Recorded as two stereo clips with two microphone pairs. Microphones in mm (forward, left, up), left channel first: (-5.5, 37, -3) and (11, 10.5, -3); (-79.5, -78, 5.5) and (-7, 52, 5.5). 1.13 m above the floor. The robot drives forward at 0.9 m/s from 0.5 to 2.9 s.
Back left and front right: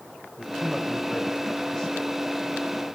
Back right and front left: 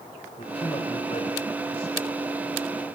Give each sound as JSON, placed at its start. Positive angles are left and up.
{"t": 0.4, "sound": "a man speaking", "azimuth_deg": -170, "distance_m": 5.0}